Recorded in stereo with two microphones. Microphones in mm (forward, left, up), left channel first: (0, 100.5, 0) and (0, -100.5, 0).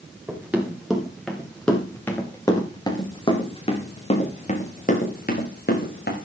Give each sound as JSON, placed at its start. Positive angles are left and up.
{"t": 0.3, "sound": "running footsteps", "side_deg": -10, "distance_m": 6.0}